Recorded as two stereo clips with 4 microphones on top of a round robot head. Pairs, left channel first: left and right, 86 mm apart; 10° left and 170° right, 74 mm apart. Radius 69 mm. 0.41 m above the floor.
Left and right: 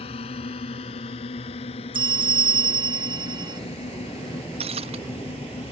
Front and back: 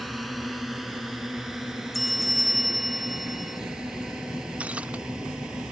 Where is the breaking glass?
90° right.